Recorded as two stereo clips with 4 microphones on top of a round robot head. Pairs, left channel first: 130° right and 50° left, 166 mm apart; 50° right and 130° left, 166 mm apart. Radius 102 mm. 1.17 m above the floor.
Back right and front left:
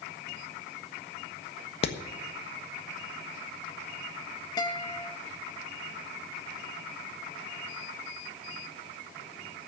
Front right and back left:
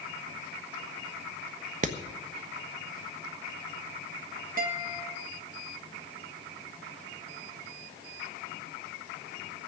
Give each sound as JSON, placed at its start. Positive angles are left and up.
{"t": 1.8, "sound": "hammering", "azimuth_deg": 175, "distance_m": 1.4}
{"t": 4.6, "sound": "a guitar", "azimuth_deg": 165, "distance_m": 2.0}